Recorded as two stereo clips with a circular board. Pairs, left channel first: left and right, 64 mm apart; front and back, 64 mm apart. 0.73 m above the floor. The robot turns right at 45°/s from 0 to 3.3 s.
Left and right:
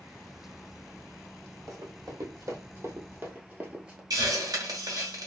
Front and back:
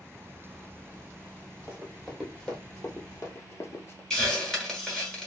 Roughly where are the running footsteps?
Behind right.